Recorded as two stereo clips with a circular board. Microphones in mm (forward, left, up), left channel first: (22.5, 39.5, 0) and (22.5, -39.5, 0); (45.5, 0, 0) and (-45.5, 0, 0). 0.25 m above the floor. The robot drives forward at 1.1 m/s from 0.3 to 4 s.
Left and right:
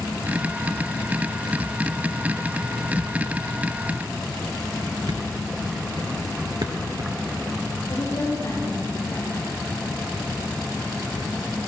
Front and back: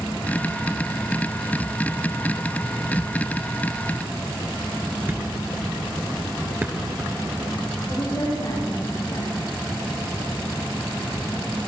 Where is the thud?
110° right, 1.6 m.